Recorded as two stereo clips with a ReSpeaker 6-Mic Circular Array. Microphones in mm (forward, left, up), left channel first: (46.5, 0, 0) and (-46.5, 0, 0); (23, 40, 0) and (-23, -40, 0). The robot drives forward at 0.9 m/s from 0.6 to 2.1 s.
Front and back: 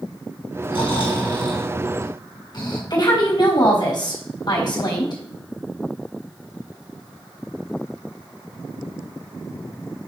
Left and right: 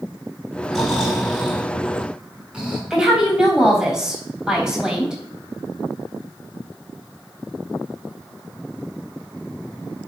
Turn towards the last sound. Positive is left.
turn(degrees=-40)